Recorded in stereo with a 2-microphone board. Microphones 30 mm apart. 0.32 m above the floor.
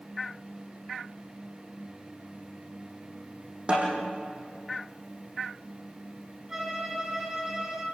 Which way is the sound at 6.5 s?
20° right (ahead or behind).